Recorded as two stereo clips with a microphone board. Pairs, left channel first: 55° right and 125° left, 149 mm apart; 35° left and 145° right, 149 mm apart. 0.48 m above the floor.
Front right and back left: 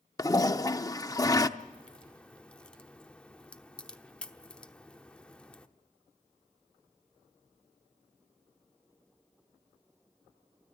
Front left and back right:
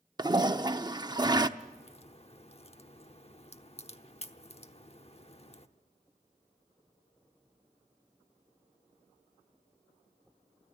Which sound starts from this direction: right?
A toilet flushing, at 0.2 s.